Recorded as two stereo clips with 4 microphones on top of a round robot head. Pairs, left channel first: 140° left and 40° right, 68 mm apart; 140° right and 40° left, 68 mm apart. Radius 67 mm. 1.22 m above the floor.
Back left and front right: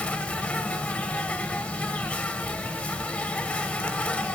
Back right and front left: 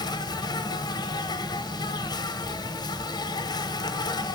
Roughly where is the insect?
Behind right.